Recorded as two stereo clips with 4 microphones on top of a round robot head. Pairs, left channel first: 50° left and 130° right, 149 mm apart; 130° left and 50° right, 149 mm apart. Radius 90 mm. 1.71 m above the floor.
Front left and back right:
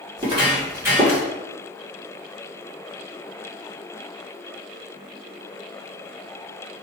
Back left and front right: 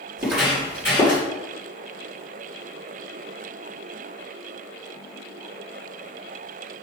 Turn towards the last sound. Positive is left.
turn(degrees=145)